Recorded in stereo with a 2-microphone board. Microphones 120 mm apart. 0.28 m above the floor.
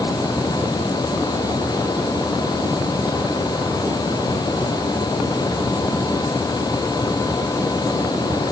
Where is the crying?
No crying in this recording.